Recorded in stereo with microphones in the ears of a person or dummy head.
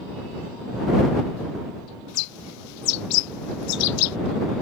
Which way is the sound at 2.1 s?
85° left.